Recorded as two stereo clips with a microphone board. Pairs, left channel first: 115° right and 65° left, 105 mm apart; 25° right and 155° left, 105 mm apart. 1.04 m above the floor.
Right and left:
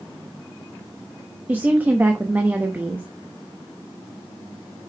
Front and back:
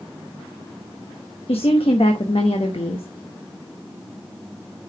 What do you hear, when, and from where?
1.5 s a woman speaking: 5° right, 1.0 m